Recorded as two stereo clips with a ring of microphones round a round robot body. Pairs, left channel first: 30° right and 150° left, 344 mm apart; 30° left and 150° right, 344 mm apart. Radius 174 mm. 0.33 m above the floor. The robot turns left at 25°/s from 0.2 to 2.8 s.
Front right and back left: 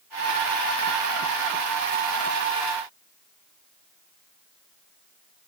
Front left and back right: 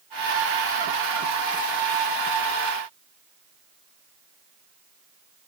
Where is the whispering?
No whispering in this recording.